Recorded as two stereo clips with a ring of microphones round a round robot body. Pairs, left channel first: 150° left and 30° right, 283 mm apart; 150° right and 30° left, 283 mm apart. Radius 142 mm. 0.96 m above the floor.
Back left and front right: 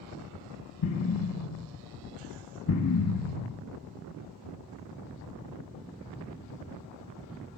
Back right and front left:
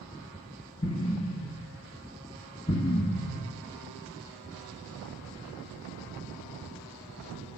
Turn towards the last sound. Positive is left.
turn(degrees=140)